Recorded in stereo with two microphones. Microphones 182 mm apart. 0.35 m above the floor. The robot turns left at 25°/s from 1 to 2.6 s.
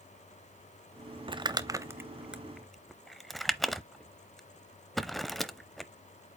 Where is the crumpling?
30° right (ahead or behind), 0.7 m; by 5.9 s centre (ahead or behind), 0.7 m.